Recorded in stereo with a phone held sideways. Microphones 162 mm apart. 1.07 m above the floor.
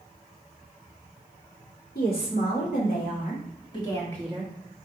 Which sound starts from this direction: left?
A woman speaking, at 1.9 s.